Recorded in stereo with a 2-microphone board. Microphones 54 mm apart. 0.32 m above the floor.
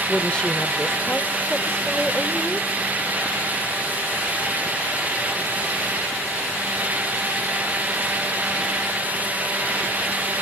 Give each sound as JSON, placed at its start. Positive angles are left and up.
{"t": 0.1, "sound": "a woman speaking", "side_deg": 20, "distance_m": 1.0}